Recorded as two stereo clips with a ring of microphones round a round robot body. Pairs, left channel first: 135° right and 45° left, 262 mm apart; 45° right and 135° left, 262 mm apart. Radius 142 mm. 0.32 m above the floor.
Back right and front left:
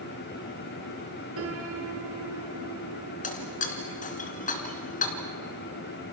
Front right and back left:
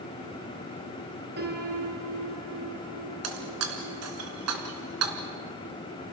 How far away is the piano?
About 4 m.